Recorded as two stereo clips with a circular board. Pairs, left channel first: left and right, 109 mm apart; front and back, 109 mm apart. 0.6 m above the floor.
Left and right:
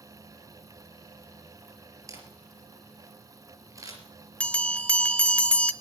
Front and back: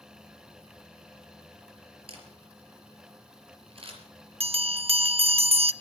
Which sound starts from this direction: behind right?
A camera shutter, at 2.1 s.